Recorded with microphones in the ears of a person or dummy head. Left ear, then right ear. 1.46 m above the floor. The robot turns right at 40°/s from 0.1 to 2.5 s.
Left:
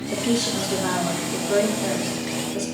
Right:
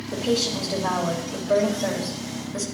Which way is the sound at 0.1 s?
130° left.